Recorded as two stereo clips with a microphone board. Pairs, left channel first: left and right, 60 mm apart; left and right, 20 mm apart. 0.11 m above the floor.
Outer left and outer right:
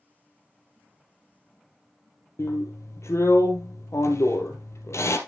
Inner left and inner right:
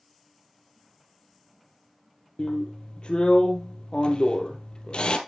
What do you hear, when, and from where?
2.4 s a drill: 50° left (ahead or behind), 1.9 m